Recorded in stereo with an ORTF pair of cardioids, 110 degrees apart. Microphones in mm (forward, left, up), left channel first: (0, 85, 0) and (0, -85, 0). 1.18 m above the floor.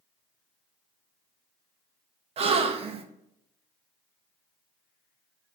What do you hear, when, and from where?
2.4 s a gasp: 40° right, 0.7 m